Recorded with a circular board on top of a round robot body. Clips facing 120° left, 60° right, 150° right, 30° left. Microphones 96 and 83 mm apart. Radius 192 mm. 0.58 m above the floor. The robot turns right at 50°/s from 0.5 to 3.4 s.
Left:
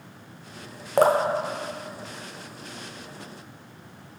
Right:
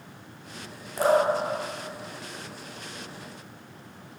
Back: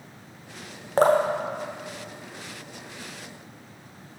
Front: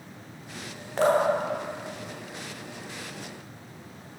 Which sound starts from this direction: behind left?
Dripping, at 1.0 s.